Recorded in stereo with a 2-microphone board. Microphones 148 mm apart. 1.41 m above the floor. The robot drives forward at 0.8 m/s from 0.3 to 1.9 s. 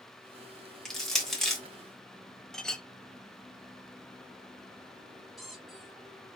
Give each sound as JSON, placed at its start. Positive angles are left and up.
{"t": 0.8, "sound": "crushing", "side_deg": 5, "distance_m": 1.2}
{"t": 2.5, "sound": "a clink", "side_deg": 5, "distance_m": 0.6}
{"t": 5.4, "sound": "a squeak", "side_deg": 0, "distance_m": 1.6}